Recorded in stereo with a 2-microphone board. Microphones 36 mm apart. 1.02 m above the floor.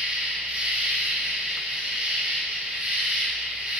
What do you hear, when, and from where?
0.0 s an insect: 35° right (ahead or behind), 2.0 m